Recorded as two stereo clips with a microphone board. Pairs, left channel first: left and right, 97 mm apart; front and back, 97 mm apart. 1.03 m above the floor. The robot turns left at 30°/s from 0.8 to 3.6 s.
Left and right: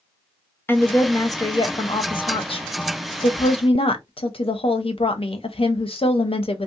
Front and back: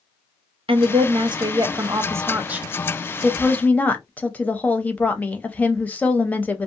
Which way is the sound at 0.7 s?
155° left.